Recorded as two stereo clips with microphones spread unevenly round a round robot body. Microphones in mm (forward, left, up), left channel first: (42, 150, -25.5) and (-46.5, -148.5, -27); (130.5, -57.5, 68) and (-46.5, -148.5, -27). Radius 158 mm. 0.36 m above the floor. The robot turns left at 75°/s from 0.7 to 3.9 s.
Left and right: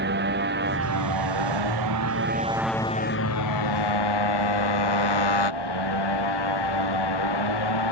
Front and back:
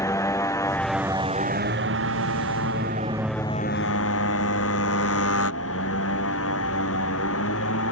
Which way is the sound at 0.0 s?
45° right.